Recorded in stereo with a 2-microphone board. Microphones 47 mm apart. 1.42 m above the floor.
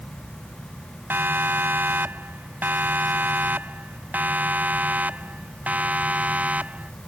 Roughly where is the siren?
Right.